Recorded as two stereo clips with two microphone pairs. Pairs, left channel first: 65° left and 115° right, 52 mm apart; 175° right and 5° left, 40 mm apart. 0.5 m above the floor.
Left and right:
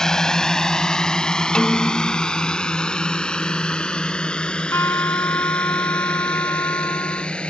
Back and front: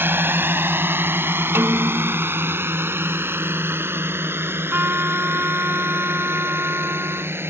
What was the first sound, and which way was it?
A drone, 10° right.